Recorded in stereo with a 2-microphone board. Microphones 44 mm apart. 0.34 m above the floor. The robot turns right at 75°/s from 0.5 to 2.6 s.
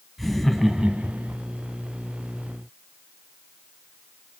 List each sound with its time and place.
0.2 s laughter: straight behind, 2 m; by 1.4 s 115° right, 2 m